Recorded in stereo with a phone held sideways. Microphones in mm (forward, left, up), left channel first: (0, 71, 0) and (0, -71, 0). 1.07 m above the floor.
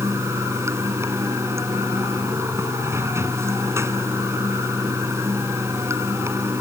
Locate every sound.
0.0 s running water: 20° right (ahead or behind)